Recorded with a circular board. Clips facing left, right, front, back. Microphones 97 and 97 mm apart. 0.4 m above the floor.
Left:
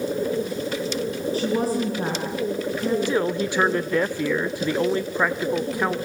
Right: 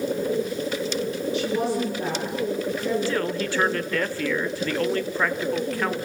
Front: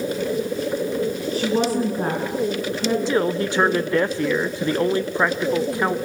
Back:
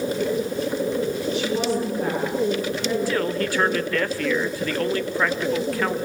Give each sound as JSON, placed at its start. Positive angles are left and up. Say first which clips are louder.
{"t": 1.3, "sound": "a woman speaking", "louder": "left 2 dB, front 5 dB", "azimuth_deg": 45, "distance_m": 4.5}
{"t": 3.1, "sound": "a man speaking", "louder": "left 3 dB, front 3 dB", "azimuth_deg": 40, "distance_m": 0.9}